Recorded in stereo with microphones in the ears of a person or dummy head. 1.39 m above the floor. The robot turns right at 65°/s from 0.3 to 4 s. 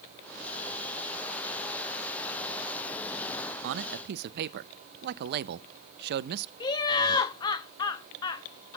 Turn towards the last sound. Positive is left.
turn(degrees=25)  # may be behind; listen again after turning